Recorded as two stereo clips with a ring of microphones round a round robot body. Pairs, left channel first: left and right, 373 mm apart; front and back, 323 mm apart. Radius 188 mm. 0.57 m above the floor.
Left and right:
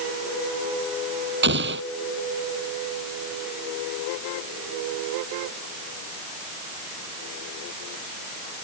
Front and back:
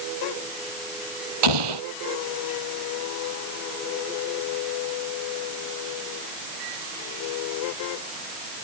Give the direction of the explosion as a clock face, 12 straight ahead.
5 o'clock.